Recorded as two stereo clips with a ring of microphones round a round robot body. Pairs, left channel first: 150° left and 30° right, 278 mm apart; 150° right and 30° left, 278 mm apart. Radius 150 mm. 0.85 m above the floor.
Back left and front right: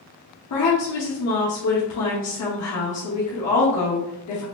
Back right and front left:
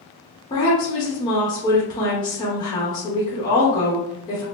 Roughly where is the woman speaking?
Behind left.